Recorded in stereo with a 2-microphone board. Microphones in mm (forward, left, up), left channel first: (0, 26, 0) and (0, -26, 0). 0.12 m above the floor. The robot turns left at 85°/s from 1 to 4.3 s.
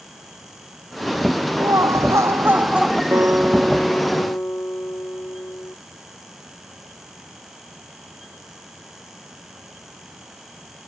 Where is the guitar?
125° right; by 5.8 s 130° left.